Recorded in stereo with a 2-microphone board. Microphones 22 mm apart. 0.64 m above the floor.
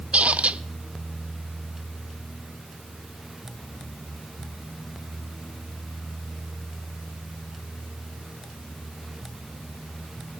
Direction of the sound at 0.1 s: 80° right.